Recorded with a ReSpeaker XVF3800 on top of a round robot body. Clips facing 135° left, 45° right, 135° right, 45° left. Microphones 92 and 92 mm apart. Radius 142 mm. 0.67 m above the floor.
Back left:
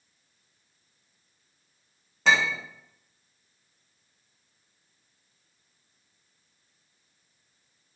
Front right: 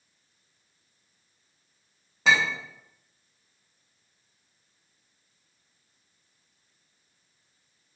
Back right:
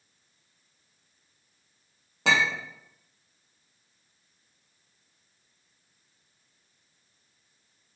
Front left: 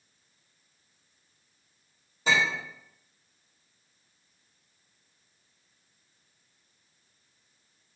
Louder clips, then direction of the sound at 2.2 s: Even, back right 1 dB; 135° right.